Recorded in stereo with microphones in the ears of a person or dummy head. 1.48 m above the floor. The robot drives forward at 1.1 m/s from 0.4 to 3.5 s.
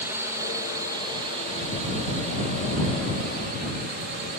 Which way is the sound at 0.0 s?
10° right (ahead or behind).